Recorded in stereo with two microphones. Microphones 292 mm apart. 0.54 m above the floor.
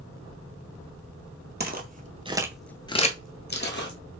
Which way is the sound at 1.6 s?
35° right (ahead or behind).